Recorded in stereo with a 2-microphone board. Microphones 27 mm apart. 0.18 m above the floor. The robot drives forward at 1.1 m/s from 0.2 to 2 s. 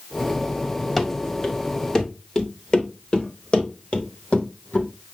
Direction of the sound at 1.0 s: 5° left (ahead or behind).